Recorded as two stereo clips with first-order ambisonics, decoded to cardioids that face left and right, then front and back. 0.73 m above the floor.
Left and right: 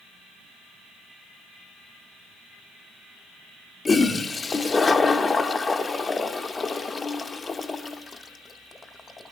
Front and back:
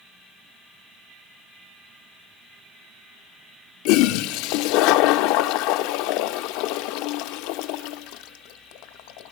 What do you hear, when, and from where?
3.9 s a toilet flushing: 15° left, 0.6 m